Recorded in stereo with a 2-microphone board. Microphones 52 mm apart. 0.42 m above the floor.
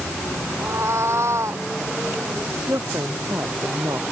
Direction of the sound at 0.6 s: 60° right (ahead or behind).